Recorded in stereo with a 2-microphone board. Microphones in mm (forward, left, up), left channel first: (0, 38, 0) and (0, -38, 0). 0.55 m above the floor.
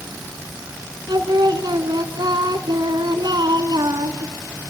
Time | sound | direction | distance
1.1 | singing | 70° right (ahead or behind) | 1.5 m